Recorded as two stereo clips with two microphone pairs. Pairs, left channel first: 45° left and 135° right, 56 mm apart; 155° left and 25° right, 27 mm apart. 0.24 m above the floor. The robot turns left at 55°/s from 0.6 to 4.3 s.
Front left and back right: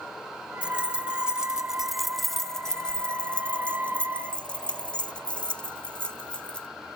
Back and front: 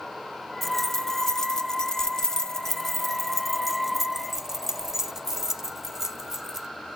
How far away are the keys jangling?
About 0.6 m.